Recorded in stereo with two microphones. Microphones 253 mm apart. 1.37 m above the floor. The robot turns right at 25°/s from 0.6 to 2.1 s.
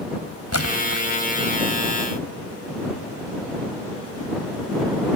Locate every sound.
0.5 s a splash: 80° left